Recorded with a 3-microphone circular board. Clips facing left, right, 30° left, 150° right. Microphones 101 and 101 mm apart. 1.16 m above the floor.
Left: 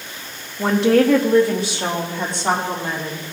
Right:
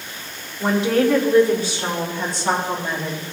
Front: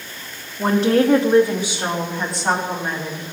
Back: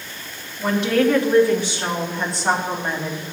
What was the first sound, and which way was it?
A woman speaking, 70° left.